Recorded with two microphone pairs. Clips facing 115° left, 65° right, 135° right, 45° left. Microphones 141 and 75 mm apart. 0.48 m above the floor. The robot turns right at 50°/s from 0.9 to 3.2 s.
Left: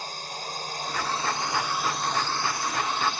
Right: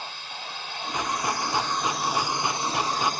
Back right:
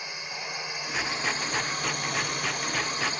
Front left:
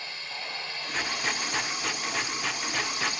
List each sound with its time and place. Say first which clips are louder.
0.0 s a drone: left 2 dB, back right 2 dB; 155° left; by 3.2 s 90° right